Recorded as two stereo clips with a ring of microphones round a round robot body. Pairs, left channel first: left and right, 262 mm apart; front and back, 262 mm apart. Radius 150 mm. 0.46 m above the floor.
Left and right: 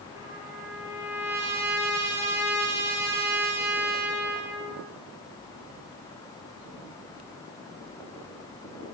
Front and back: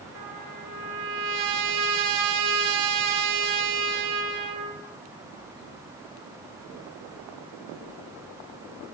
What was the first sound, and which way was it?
A trumpet, 170° right.